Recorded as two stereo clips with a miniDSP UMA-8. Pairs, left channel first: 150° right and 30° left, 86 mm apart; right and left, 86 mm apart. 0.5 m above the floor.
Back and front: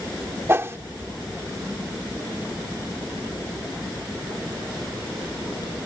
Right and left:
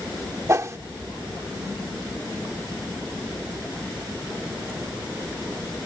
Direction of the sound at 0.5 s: 65° left.